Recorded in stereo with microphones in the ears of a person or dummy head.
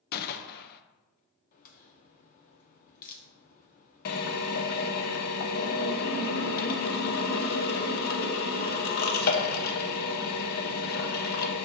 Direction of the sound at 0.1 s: 45° left (ahead or behind).